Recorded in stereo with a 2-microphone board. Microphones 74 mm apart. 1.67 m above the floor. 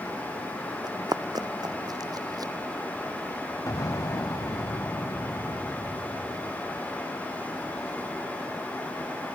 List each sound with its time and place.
0.8 s running footsteps: 70° right (ahead or behind); by 2.5 s 60° right (ahead or behind)
3.7 s an explosion: 55° left (ahead or behind)